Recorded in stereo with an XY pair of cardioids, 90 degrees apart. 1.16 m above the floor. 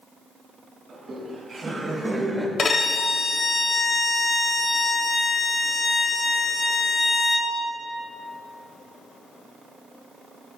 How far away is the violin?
About 0.9 m.